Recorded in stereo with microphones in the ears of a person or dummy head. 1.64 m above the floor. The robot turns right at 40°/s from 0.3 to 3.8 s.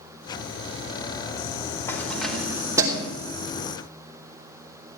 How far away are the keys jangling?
About 3 m.